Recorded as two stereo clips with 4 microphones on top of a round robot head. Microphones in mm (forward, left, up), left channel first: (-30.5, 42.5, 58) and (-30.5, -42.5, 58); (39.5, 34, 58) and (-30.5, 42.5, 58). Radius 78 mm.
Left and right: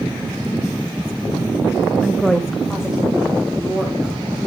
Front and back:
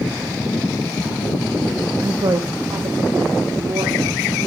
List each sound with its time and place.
2.0 s a woman speaking: 175° left, 0.6 m; by 4.4 s 170° right, 2.5 m